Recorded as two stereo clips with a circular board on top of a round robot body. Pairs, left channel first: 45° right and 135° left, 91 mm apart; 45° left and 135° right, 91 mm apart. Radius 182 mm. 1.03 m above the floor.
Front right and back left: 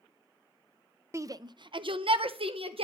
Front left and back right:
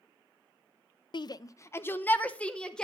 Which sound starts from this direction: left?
A shout, at 1.1 s.